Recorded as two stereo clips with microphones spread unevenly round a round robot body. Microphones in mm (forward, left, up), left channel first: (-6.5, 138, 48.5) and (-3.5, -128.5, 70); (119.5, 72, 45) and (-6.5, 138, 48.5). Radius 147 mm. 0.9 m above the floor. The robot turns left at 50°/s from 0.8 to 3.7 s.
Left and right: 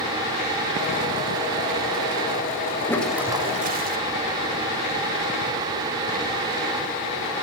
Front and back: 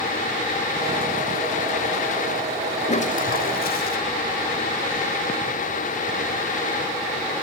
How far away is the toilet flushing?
About 2.5 m.